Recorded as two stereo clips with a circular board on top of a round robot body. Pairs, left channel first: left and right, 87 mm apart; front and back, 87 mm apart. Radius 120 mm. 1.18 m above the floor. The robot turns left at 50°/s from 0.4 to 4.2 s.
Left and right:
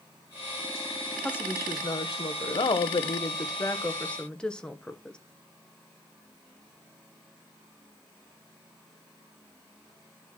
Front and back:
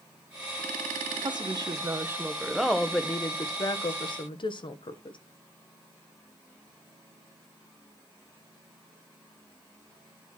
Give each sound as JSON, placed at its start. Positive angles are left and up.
{"t": 1.2, "sound": "a woman speaking", "azimuth_deg": 160, "distance_m": 1.3}